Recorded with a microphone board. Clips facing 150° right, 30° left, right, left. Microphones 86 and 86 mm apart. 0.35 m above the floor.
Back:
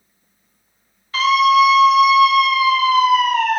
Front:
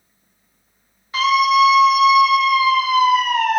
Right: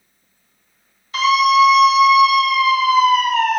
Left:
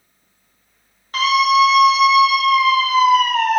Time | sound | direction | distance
1.1 | a scream | 95° left | 2 m